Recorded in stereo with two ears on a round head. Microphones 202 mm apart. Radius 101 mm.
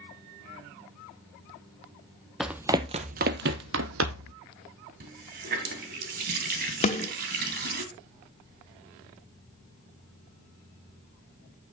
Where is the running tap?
45° right (ahead or behind), 2 m.